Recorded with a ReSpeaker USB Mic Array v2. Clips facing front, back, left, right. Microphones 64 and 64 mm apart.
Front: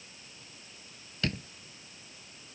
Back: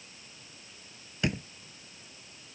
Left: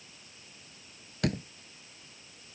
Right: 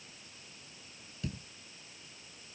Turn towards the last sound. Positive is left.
turn(degrees=105)